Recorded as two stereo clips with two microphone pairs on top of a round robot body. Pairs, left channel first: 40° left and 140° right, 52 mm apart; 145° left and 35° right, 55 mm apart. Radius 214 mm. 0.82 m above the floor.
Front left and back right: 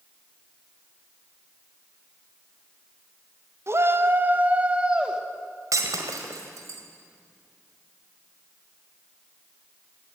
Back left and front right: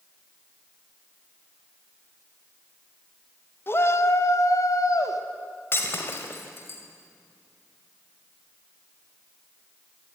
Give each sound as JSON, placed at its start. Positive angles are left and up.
{"t": 3.7, "sound": "a shout", "azimuth_deg": -175, "distance_m": 1.8}
{"t": 5.7, "sound": "breaking glass", "azimuth_deg": -160, "distance_m": 1.8}